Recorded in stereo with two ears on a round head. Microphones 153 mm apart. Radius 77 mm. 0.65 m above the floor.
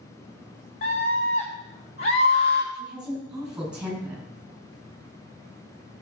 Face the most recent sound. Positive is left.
turn(degrees=-5)  # may be behind; listen again after turning